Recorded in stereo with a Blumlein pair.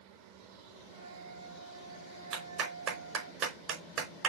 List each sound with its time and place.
0.9 s a flute: 65° right, 0.9 m
2.3 s a clap: 30° right, 4 m